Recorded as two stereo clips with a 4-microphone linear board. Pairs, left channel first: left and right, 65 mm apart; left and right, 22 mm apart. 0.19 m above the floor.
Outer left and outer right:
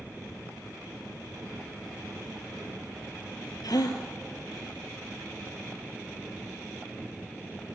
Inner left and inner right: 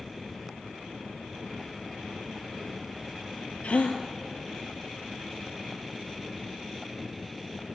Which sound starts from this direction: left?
A gasp, at 3.6 s.